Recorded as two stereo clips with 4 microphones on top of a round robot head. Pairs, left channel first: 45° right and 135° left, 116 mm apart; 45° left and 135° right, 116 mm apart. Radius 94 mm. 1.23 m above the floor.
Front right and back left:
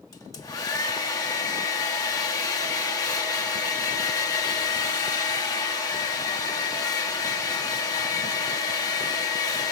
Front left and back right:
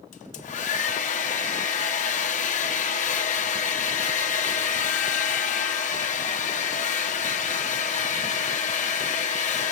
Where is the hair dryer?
20° left, 1.4 m.